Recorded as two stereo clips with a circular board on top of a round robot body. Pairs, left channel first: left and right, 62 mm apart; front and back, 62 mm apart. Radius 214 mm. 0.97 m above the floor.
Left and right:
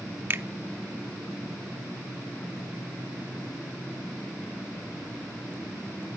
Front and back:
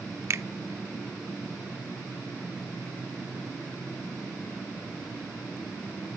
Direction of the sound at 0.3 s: 140° right.